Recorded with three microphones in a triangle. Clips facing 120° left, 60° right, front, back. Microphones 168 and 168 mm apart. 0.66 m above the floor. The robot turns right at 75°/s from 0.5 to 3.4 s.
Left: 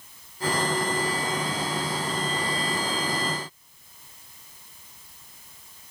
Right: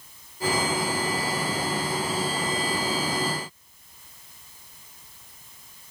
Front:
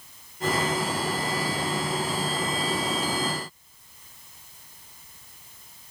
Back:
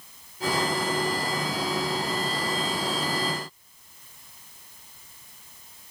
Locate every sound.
Only background noise.